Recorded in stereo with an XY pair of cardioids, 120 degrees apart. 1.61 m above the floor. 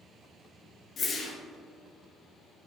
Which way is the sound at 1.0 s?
45° left.